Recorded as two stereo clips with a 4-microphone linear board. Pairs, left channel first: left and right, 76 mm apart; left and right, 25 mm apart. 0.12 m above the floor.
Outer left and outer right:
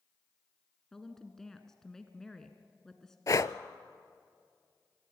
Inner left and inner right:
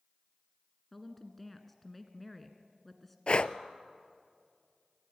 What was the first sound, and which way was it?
A woman speaking, 5° left (ahead or behind).